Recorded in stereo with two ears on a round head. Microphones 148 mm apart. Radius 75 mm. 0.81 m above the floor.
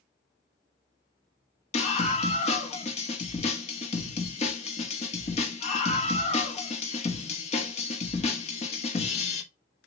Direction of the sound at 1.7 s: 40° left (ahead or behind).